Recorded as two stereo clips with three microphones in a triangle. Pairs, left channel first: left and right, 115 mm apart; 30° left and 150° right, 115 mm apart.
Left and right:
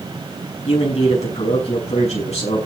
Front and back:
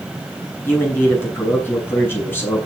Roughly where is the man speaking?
Left.